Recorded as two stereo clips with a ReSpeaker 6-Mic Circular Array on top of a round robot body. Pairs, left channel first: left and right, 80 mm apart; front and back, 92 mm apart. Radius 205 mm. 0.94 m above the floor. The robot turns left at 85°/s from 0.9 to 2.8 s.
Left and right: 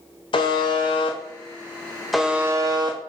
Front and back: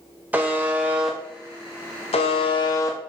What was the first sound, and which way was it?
A buzzer, 105° left.